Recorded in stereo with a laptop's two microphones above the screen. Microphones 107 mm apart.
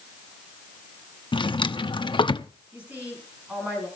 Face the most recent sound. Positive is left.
turn(degrees=-15)  # may be behind; listen again after turning